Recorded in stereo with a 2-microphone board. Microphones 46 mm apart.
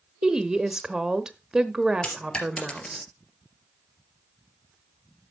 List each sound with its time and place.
0.2 s a woman speaking: 15° right (ahead or behind), 1.0 m
2.0 s a dropped coin: 25° left (ahead or behind), 3 m